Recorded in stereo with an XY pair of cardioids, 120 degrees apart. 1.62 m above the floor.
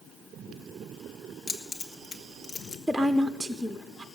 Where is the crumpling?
I don't hear crumpling.